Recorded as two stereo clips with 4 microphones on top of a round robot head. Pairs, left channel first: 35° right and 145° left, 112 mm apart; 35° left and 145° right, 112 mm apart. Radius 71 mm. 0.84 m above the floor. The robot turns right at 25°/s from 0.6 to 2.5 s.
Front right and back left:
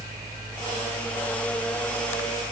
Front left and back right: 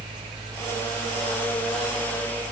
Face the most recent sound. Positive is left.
No sound to turn to.